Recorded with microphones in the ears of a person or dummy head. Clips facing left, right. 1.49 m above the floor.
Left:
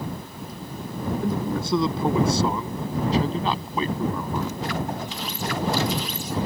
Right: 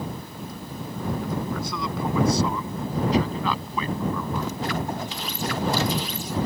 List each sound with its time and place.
1.2 s a man speaking: 20° left (ahead or behind)